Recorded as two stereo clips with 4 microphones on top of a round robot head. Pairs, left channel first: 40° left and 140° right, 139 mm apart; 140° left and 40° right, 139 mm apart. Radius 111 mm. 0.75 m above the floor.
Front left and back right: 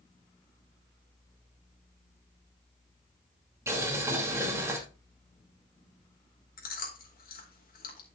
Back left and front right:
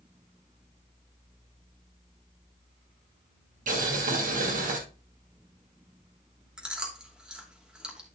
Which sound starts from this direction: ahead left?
Chewing, at 6.6 s.